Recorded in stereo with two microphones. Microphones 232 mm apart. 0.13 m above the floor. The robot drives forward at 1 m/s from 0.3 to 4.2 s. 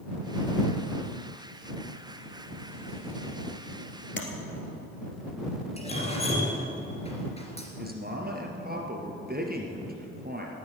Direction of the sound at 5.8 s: 25° left (ahead or behind).